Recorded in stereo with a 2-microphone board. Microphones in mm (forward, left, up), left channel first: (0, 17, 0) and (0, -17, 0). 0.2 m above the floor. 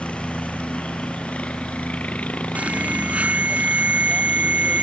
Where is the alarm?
45° right (ahead or behind).